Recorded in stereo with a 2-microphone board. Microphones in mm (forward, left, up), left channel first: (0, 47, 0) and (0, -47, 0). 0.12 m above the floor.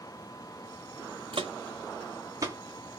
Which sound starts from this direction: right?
Footsteps, at 1.3 s.